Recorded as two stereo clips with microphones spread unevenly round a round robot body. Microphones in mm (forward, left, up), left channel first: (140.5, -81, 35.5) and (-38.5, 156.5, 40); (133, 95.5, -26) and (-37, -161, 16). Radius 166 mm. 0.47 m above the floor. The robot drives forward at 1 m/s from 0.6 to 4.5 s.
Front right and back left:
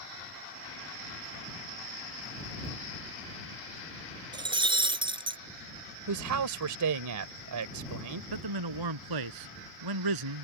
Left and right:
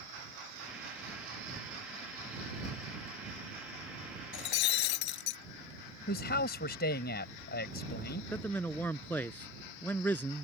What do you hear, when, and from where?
4.3 s breaking glass: 50° left; by 5.4 s 55° left
6.1 s a man speaking: 115° left
8.3 s a man speaking: 140° left